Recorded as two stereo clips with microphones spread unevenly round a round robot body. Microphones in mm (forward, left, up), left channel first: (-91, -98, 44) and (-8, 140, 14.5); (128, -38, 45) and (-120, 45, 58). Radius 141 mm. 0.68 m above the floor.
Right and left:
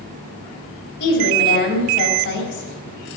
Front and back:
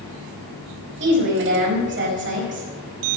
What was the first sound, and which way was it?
A woman speaking, 155° right.